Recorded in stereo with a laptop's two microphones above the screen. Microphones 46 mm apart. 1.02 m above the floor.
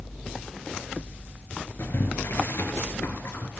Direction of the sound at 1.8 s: 55° left (ahead or behind).